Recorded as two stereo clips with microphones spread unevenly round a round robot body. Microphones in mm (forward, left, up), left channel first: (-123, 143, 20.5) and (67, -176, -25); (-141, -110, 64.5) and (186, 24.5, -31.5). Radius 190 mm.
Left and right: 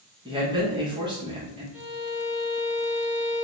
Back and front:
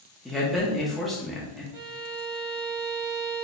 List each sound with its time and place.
0.2 s a man speaking: 30° right, 0.8 m
1.7 s a violin: 25° left, 1.5 m